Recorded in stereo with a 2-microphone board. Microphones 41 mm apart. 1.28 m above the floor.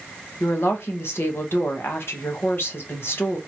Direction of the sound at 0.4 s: 70° left (ahead or behind).